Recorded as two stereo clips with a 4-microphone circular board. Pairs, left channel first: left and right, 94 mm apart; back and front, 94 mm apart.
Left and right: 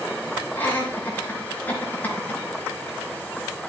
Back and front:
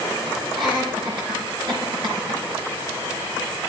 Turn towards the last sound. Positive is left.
turn(degrees=20)